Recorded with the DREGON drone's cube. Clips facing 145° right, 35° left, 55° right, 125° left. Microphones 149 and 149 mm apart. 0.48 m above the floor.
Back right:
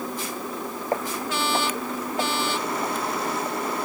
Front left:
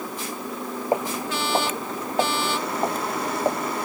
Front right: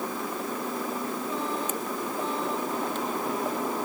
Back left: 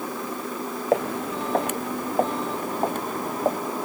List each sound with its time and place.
0.9 s footsteps: 110° left; by 3.6 s 80° left